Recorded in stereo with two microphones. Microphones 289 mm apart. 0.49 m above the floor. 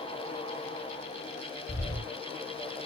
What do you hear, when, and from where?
1.7 s footsteps: 40° left (ahead or behind), 2 m